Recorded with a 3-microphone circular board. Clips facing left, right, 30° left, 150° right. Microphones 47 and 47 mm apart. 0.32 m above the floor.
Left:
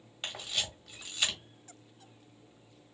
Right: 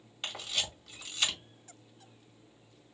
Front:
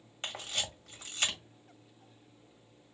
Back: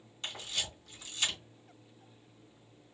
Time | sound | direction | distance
0.2 | a camera shutter | 5° right | 1.9 m